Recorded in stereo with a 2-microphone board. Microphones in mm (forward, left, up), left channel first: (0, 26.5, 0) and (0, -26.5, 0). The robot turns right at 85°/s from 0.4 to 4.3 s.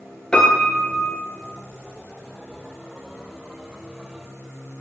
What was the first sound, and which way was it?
A piano, 25° left.